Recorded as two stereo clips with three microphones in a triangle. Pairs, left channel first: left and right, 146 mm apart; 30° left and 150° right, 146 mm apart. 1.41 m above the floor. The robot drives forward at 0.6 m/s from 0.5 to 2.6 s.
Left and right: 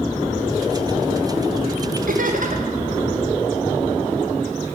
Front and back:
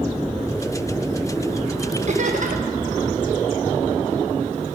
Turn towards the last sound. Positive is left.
turn(degrees=-120)